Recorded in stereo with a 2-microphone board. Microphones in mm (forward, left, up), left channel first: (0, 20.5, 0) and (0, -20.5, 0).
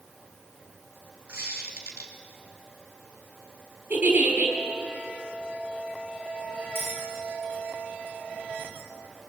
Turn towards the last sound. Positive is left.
turn(degrees=-75)  # may be behind; listen again after turning